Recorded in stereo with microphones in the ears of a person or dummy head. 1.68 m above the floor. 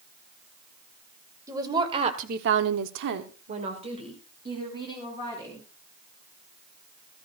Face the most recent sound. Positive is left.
turn(degrees=-15)  # may be behind; listen again after turning